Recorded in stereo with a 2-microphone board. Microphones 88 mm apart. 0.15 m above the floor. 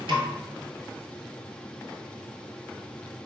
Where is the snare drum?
70° right (ahead or behind), 0.7 m.